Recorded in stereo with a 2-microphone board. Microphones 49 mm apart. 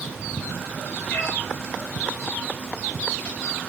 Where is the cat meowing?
45° left (ahead or behind), 2 m.